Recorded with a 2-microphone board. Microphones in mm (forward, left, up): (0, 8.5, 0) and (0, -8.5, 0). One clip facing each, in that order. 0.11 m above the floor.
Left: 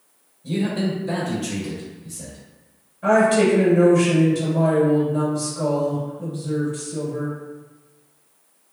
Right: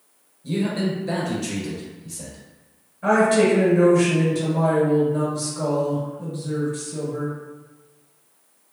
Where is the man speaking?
Centre (ahead or behind), 1.4 m; by 2.4 s 45° right (ahead or behind), 1.6 m.